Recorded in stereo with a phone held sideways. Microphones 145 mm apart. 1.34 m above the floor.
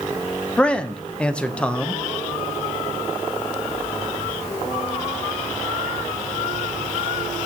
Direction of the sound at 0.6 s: 10° left (ahead or behind).